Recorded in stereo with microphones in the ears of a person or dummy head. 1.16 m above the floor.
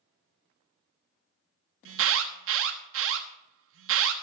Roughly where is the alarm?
Right.